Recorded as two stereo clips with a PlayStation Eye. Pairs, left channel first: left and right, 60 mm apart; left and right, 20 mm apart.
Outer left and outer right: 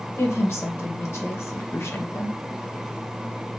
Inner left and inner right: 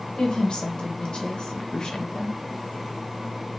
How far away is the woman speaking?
About 0.8 m.